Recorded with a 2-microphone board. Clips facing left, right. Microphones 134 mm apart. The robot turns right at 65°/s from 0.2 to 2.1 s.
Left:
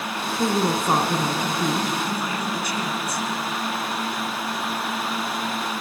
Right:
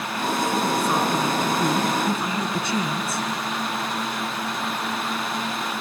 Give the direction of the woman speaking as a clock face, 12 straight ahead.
9 o'clock.